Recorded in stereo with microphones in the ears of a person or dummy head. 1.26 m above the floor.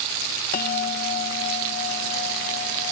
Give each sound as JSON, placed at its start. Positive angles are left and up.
{"t": 0.5, "sound": "a bell", "side_deg": 45}